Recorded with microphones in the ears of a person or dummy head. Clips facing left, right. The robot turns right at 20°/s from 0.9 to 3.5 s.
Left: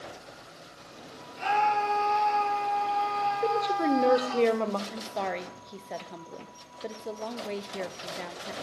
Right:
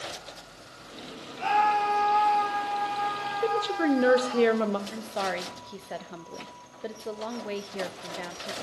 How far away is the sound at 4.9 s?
About 0.6 m.